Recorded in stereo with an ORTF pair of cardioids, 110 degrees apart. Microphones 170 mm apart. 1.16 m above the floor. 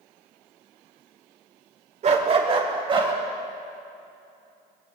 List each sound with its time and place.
2.0 s a dog barking: 40° right, 1.7 m; by 3.1 s 30° right, 3 m